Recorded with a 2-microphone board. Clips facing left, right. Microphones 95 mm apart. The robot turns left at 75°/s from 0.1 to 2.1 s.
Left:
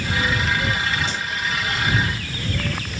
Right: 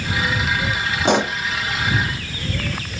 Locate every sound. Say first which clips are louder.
1.1 s a pop: right 10 dB; 70° right (ahead or behind); by 1.4 s 85° right